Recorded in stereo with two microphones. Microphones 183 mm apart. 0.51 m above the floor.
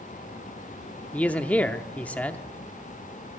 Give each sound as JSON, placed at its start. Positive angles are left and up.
{"t": 1.1, "sound": "a man speaking", "side_deg": 10, "distance_m": 0.7}